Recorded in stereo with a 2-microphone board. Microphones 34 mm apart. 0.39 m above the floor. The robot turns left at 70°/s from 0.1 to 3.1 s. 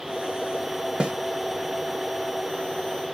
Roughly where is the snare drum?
Right.